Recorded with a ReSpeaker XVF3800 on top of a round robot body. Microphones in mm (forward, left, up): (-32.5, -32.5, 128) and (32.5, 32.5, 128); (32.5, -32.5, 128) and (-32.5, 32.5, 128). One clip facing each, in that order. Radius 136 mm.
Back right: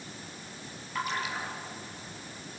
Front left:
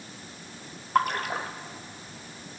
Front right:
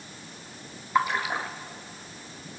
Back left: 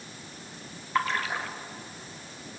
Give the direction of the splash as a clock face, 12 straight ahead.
11 o'clock.